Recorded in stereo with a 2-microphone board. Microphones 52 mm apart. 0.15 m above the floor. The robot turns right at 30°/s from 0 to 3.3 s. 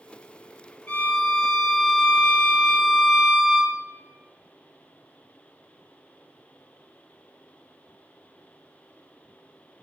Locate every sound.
0.9 s a violin: 25° left (ahead or behind), 0.7 m; by 3.8 s 10° right (ahead or behind), 0.7 m